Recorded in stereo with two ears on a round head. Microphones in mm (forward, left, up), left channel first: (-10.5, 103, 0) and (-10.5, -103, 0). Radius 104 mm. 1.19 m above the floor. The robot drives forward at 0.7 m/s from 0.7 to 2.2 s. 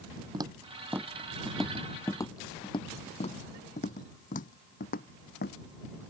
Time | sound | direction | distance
0.3 | footsteps | 20° right (ahead or behind) | ?